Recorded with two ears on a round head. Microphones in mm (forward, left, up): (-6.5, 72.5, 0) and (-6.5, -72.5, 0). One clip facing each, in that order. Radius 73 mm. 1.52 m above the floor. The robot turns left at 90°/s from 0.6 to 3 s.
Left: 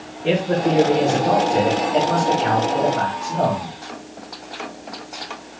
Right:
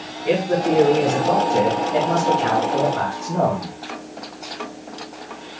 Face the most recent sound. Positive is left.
turn(degrees=-125)